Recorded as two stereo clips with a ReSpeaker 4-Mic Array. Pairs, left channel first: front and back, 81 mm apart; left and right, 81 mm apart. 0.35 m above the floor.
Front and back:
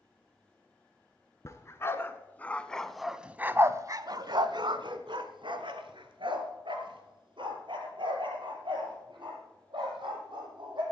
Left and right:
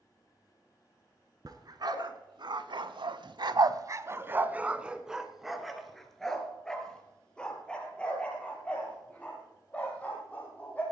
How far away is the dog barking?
About 1.3 m.